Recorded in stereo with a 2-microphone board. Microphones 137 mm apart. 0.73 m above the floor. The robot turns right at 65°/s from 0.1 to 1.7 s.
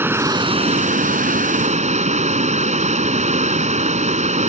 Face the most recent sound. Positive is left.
turn(degrees=-60)